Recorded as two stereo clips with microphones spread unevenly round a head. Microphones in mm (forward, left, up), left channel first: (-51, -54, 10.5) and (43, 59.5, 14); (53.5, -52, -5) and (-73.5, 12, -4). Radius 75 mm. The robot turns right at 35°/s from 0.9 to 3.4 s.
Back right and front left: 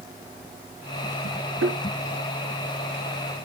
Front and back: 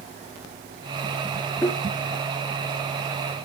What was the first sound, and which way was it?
A thud, 50° left.